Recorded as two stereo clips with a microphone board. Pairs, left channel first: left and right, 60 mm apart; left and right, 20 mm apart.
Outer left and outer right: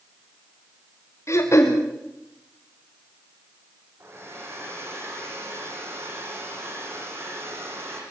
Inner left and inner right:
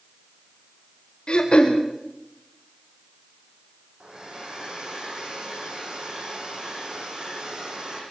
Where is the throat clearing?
50° left (ahead or behind), 5 m.